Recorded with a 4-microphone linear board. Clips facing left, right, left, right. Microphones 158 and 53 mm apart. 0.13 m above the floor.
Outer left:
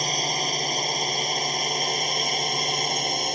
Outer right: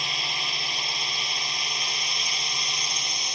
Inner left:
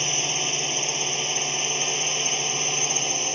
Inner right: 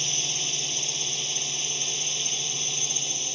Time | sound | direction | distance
0.0 | a drone | 40° left (ahead or behind) | ?